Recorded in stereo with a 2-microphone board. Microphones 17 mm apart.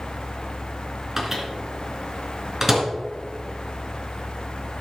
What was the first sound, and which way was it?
A microwave, 15° right (ahead or behind).